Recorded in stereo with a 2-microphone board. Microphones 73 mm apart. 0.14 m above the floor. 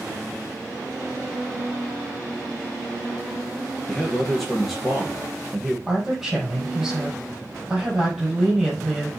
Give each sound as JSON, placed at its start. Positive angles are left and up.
{"t": 3.9, "sound": "a man speaking", "side_deg": 0, "distance_m": 2.5}
{"t": 5.9, "sound": "a woman speaking", "side_deg": -5, "distance_m": 5.5}